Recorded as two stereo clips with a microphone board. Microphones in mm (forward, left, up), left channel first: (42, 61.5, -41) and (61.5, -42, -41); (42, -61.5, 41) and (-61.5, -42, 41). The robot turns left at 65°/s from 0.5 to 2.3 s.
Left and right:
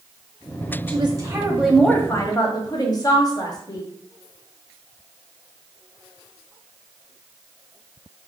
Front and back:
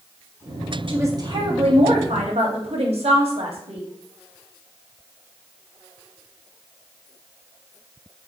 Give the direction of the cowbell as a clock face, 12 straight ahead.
I don't hear a cowbell.